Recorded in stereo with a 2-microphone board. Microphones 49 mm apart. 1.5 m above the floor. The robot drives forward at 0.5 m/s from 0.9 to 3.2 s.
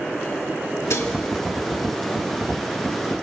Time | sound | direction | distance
0.9 | dishes clattering | 75° left (ahead or behind) | 2 m